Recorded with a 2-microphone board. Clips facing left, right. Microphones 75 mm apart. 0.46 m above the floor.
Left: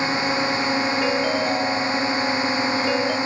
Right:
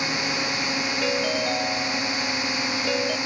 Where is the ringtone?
5° left (ahead or behind).